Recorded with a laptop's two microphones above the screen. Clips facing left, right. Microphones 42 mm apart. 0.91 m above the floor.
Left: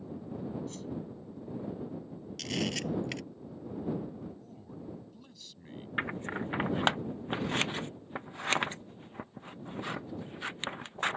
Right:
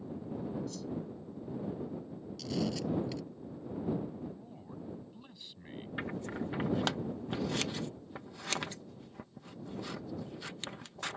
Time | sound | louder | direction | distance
0.7 | a whoosh | even | 40° left (ahead or behind) | ?
2.4 | a camera shutter | left 1 dB | 60° left (ahead or behind) | ?
4.2 | a man speaking | right 1 dB | 20° right (ahead or behind) | ?
6.0 | scissors | left 4 dB | 35° left (ahead or behind) | ?